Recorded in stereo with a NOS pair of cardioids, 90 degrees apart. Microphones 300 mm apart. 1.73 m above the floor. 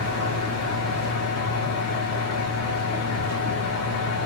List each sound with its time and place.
0.0 s a fan: 60° left, 1.3 m